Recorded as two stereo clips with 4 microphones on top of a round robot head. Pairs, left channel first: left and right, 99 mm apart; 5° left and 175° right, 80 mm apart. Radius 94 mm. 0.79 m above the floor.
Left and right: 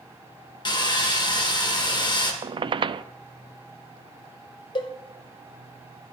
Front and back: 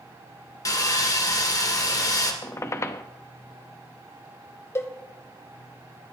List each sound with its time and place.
0.7 s sawing: 45° left, 1.8 m
2.4 s a squeak: 55° right, 0.5 m
4.8 s a cowbell: 55° left, 0.8 m